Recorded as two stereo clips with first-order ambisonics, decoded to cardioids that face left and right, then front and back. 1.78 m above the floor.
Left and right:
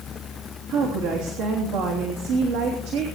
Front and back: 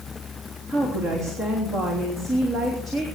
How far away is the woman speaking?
About 3 m.